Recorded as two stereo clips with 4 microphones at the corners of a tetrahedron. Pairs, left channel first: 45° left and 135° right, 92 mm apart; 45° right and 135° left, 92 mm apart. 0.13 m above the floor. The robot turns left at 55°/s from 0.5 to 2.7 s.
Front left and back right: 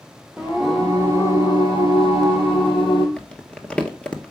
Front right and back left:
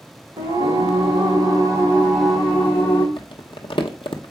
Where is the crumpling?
35° right, 1.0 m.